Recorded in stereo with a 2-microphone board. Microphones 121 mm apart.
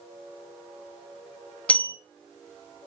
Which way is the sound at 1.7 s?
10° left (ahead or behind).